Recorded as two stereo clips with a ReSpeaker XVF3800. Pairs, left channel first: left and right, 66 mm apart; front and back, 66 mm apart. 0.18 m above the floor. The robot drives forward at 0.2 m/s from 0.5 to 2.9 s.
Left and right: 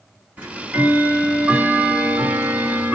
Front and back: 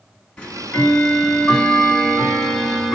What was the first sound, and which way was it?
Ticking, 55° right.